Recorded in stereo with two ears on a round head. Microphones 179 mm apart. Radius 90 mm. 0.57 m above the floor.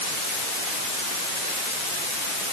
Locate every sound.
Only background noise.